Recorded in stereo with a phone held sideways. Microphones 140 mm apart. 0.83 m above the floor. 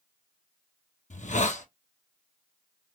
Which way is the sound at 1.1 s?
60° left (ahead or behind).